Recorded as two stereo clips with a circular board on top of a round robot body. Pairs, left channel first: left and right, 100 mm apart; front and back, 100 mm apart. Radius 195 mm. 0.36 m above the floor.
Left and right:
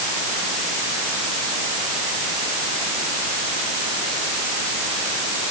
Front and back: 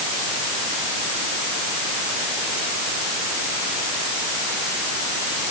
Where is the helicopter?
I don't hear a helicopter.